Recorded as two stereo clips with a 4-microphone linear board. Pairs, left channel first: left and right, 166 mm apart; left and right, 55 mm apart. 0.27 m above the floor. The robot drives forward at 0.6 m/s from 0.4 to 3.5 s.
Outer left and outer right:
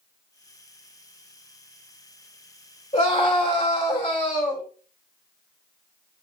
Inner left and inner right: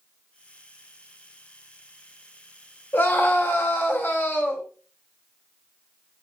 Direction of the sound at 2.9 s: 35° left (ahead or behind).